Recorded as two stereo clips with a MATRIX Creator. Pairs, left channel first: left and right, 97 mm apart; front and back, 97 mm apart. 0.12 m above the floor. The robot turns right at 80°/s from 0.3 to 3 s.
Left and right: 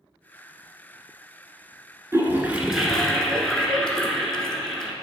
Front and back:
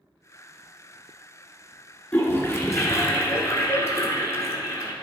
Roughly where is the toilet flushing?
Ahead right.